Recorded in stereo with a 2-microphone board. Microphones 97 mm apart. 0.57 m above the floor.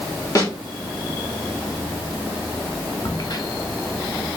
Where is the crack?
45° left (ahead or behind), 0.7 m.